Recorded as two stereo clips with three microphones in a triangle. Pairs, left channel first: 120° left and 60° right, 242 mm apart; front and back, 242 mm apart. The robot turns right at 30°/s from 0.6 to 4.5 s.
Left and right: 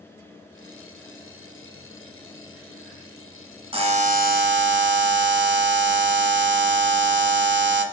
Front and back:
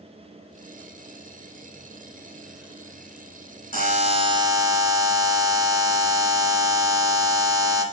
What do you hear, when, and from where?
3.7 s a buzzer: 130° right, 1.1 m; by 7.8 s 105° right, 1.1 m